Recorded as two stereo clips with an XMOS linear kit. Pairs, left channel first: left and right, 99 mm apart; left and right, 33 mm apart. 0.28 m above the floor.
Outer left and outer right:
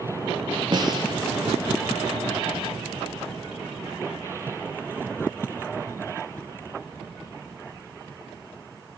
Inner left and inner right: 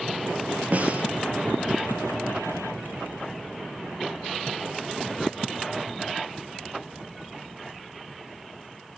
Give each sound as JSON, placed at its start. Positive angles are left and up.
{"t": 0.7, "sound": "a snare drum", "side_deg": -45, "distance_m": 4.5}